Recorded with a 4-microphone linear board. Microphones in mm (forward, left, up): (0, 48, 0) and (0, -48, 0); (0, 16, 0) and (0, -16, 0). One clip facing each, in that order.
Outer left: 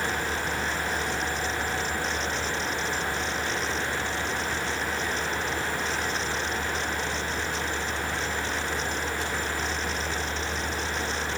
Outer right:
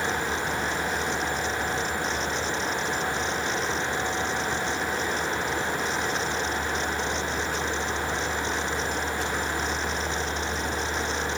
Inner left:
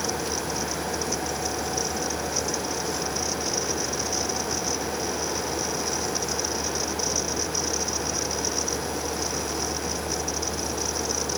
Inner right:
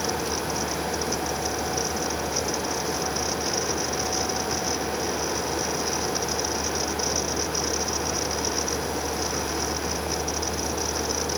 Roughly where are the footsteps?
I don't hear footsteps.